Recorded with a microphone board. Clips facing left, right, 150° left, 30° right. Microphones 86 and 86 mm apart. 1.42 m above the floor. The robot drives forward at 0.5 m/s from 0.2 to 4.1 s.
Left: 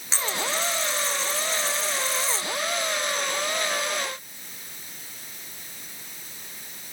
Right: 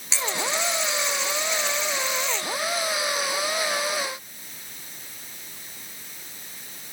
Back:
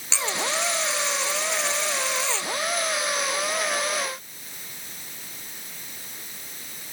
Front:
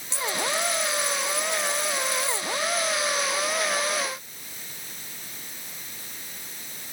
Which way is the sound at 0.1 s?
145° left.